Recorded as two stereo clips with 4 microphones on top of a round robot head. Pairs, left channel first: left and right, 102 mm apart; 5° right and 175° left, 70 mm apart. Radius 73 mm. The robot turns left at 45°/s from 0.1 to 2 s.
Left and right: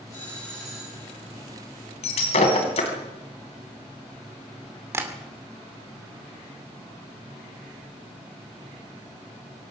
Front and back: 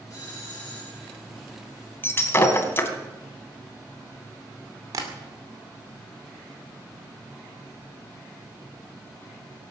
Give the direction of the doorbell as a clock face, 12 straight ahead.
11 o'clock.